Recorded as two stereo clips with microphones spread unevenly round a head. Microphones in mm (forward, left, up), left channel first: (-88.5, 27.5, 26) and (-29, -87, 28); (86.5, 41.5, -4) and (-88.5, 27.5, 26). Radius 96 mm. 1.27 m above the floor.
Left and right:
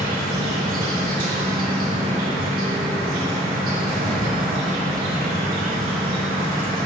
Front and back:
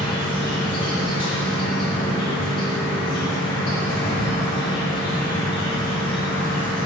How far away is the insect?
About 3.5 m.